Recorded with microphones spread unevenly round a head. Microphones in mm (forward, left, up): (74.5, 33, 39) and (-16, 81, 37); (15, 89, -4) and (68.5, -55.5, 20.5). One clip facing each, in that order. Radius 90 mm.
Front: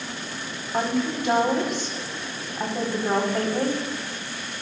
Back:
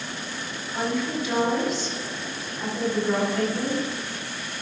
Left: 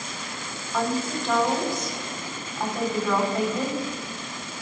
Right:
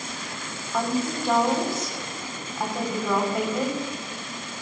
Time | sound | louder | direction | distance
0.7 | a woman speaking | front 2 dB, right 1 dB | 10° left | 4.5 m